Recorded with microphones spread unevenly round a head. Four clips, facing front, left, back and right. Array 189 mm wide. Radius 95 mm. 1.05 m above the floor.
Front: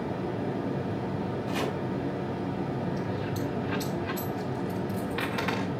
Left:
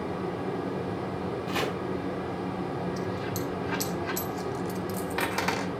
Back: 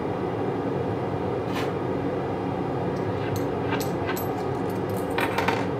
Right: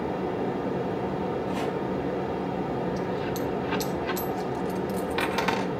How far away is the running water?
About 1.2 m.